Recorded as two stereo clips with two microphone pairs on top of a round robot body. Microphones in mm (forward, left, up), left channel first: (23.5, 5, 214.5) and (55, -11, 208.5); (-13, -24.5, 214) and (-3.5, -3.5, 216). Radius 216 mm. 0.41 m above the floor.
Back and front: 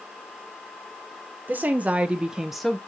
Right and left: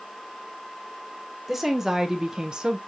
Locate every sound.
1.5 s a woman speaking: 15° right, 1.3 m; by 2.8 s 65° left, 0.9 m